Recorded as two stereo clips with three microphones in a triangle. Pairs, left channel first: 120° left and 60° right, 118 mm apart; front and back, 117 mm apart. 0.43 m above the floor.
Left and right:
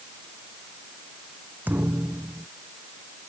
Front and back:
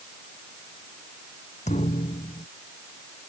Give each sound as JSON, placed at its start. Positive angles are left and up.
{"t": 1.7, "sound": "a thud", "azimuth_deg": 15}